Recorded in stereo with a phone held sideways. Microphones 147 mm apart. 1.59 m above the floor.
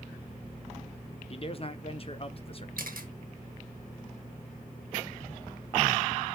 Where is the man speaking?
40° left (ahead or behind), 0.8 m.